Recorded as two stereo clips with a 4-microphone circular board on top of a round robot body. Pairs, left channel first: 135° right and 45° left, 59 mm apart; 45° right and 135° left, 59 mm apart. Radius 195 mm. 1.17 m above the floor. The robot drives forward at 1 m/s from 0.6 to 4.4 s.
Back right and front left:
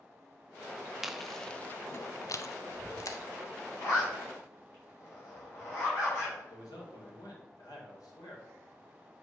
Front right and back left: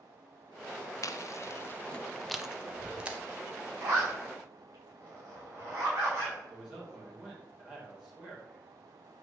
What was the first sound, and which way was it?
Chewing, 40° right.